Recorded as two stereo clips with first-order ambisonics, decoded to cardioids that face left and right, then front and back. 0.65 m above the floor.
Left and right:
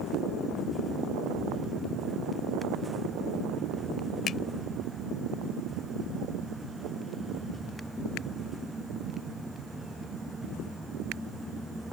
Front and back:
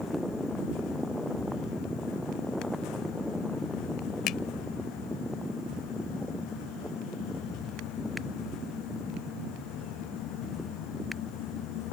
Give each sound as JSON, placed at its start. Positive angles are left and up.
{"t": 4.3, "sound": "a finger snap", "azimuth_deg": 35}